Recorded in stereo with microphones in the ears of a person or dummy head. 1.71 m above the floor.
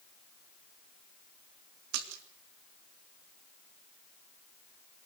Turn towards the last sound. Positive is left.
turn(degrees=-85)